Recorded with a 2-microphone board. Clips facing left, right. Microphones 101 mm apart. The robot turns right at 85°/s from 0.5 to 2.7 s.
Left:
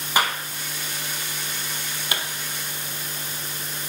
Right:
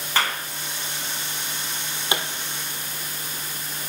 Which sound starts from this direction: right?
A pop, at 2.1 s.